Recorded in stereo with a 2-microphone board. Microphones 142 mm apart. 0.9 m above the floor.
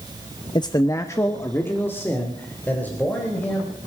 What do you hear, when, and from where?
0.6 s a man speaking: 30° left (ahead or behind), 0.5 m; by 3.7 s 10° left (ahead or behind), 4 m